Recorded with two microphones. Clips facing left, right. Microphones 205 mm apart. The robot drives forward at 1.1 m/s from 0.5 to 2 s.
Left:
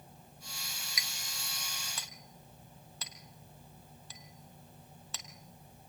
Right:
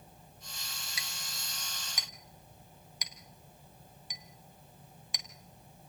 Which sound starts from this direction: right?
A clink, at 1.0 s.